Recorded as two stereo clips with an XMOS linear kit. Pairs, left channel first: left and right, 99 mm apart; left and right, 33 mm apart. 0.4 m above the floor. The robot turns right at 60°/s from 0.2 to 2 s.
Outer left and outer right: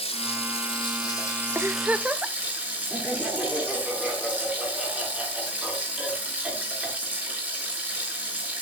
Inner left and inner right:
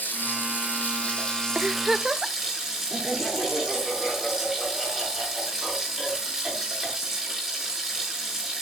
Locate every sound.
0.0 s running water: 85° left, 5.5 m; by 8.6 s 165° right, 5.5 m
1.6 s a giggle: 25° right (ahead or behind), 0.7 m; by 2.4 s 15° right (ahead or behind), 0.7 m
2.9 s laughter: 10° right (ahead or behind), 6 m